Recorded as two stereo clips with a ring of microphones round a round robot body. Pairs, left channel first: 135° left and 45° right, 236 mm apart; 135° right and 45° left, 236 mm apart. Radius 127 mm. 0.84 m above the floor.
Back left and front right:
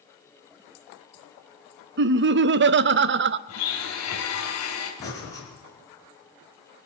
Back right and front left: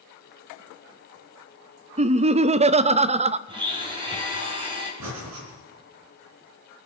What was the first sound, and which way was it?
Laughter, 15° right.